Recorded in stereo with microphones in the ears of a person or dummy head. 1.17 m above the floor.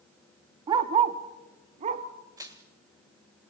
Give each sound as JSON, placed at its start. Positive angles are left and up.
{"t": 0.7, "sound": "a dog barking", "side_deg": -20, "distance_m": 0.7}
{"t": 2.4, "sound": "crushing", "side_deg": -15, "distance_m": 1.5}